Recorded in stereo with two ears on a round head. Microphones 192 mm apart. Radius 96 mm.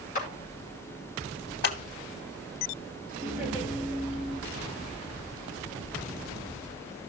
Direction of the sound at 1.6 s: 50° left (ahead or behind).